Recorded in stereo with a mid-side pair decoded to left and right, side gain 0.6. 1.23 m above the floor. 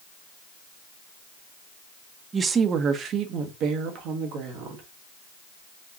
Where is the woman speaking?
30° right, 0.7 m; by 4.8 s 75° right, 1.7 m.